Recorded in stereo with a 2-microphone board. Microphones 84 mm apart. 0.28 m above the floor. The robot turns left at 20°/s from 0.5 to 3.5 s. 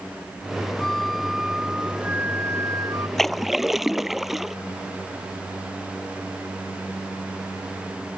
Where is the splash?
5° left (ahead or behind); by 4.5 s centre (ahead or behind).